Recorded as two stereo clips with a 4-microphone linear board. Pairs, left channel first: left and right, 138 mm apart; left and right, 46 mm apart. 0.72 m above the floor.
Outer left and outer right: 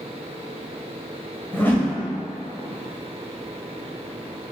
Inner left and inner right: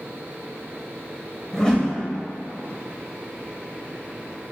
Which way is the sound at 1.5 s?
15° left (ahead or behind).